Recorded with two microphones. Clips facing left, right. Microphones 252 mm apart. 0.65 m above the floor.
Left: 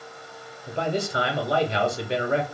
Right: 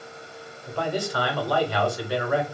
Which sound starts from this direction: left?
A man speaking, at 0.7 s.